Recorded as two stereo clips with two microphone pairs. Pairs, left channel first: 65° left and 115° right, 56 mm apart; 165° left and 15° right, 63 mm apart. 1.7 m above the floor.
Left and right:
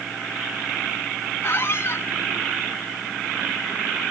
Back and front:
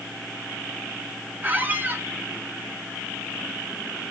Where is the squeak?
35° left, 1.2 m.